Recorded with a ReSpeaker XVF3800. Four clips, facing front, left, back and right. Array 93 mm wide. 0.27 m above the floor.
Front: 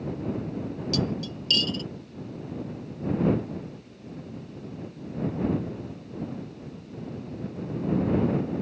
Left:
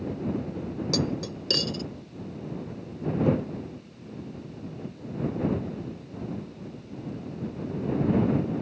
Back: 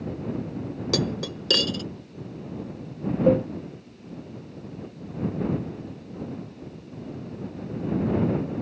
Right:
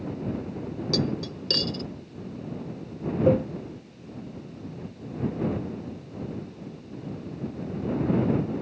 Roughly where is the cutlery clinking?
Behind.